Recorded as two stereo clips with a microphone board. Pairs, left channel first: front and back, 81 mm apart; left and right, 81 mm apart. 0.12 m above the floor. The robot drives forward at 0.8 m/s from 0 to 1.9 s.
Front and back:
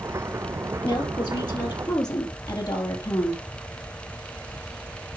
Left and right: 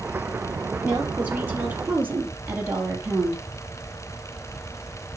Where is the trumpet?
I don't hear a trumpet.